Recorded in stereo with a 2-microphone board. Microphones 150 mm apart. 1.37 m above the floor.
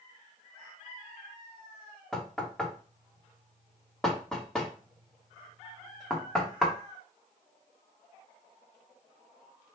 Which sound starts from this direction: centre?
Knocking, at 2.1 s.